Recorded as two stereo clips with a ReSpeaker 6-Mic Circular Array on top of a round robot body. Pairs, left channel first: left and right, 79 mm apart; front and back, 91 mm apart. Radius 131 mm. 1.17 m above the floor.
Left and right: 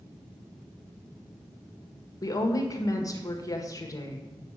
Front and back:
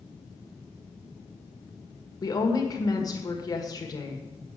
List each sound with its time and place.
2.2 s a woman speaking: 50° left, 1.7 m